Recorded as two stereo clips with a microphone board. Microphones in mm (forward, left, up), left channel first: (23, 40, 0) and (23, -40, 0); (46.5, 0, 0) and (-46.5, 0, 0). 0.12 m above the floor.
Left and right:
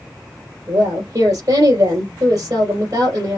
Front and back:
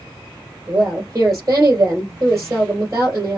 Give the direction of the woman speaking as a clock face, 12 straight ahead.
4 o'clock.